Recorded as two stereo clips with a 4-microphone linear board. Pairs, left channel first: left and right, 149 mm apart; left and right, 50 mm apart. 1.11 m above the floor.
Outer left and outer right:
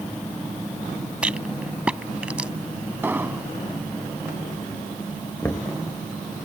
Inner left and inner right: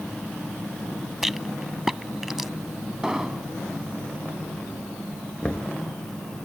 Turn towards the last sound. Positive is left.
turn(degrees=15)  # may be behind; listen again after turning